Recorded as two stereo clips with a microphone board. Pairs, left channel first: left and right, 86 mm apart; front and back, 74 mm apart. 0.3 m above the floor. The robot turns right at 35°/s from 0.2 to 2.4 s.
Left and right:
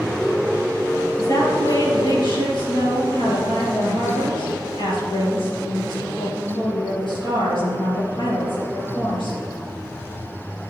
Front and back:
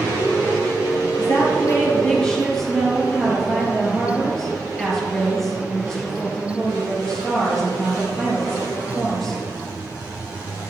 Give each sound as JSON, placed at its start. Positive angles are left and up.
{"t": 1.2, "sound": "a woman speaking", "azimuth_deg": 40, "distance_m": 5.5}